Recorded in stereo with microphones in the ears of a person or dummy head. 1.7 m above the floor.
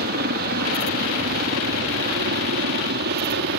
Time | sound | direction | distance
0.0 | a helicopter | 50° right (ahead or behind) | ?